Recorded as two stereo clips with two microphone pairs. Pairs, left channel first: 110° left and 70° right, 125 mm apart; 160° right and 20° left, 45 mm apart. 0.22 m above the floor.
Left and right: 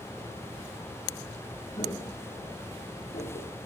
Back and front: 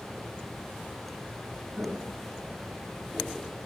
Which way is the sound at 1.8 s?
55° left.